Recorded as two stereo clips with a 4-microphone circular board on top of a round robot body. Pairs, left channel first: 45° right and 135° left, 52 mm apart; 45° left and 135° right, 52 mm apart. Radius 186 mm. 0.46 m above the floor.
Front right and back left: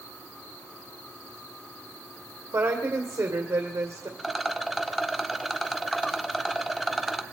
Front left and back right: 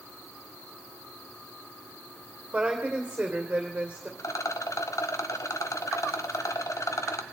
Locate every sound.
2.5 s a woman speaking: 150° left, 2.5 m
4.2 s a rattle: 45° left, 1.3 m